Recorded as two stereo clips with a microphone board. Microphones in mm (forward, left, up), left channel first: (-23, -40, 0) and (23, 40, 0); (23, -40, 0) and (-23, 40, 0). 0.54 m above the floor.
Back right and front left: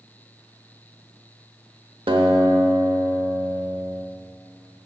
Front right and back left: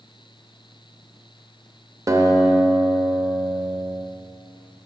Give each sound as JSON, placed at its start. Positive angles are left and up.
{"t": 2.1, "sound": "a guitar", "azimuth_deg": 70, "distance_m": 0.9}